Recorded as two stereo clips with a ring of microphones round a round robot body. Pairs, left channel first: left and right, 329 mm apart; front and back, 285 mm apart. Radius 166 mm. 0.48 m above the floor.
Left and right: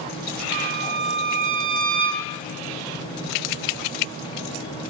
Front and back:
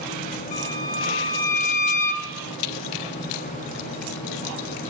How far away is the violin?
About 1.1 m.